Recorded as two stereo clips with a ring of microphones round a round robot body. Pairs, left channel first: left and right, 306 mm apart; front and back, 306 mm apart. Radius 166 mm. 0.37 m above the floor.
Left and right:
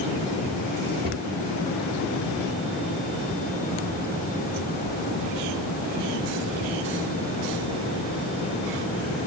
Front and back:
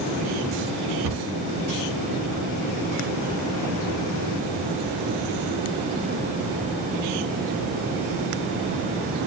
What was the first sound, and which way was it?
A cupboard door, 150° right.